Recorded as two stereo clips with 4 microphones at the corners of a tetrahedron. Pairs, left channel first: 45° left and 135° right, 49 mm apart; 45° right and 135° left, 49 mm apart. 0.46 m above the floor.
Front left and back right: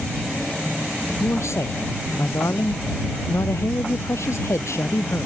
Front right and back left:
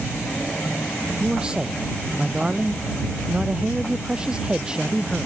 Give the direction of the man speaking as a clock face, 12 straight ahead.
10 o'clock.